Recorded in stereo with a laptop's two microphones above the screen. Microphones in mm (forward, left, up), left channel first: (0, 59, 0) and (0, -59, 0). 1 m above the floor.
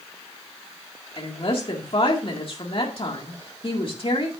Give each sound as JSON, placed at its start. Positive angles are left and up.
{"t": 1.2, "sound": "a woman speaking", "side_deg": 50, "distance_m": 1.9}